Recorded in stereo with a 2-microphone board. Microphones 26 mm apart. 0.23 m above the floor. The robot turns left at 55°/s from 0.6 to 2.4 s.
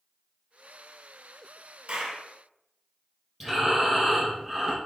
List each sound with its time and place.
1.9 s a clap: 45° right (ahead or behind), 3 m; by 2.2 s 55° right (ahead or behind), 3 m
3.4 s breathing: 5° right (ahead or behind), 4.5 m